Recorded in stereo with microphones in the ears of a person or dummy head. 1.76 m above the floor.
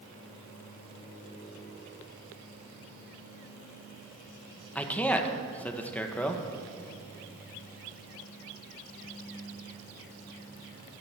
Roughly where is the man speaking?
Centre.